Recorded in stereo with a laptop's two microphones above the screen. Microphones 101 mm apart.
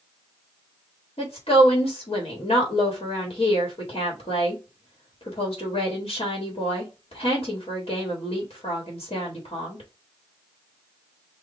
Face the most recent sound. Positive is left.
turn(degrees=70)  # may be behind; listen again after turning